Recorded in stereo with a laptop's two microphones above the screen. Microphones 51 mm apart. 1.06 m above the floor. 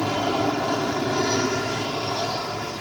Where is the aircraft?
Centre (ahead or behind).